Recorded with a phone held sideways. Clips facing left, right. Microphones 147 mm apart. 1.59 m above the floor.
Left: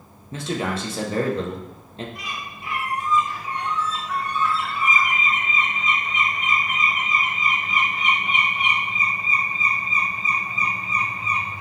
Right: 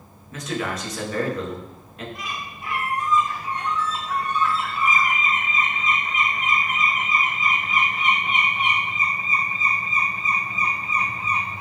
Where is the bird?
40° right (ahead or behind), 2.0 m.